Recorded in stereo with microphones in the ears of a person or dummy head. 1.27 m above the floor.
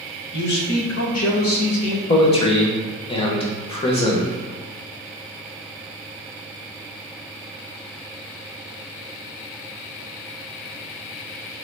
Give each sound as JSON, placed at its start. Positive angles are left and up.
{"t": 0.3, "sound": "a man speaking", "side_deg": 50, "distance_m": 1.0}
{"t": 2.1, "sound": "a man speaking", "side_deg": 30, "distance_m": 0.7}